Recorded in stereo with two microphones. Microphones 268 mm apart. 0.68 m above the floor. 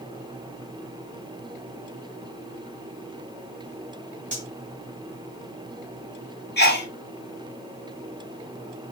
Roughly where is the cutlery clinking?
Right.